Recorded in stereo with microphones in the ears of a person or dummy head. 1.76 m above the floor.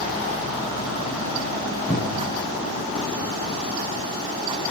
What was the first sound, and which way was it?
A cupboard door, 10° left (ahead or behind).